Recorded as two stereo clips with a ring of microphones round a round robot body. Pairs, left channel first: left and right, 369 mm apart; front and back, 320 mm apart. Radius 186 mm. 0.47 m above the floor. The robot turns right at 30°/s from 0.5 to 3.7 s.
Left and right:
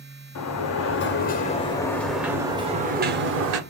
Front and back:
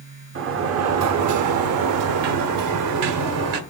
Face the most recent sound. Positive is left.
turn(degrees=-135)